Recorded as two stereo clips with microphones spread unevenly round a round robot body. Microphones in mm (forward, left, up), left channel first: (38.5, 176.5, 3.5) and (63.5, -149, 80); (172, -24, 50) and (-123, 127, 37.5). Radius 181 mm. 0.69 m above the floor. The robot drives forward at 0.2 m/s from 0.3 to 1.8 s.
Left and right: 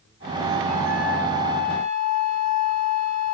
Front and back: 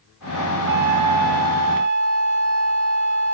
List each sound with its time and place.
0.7 s a flute: straight behind, 0.7 m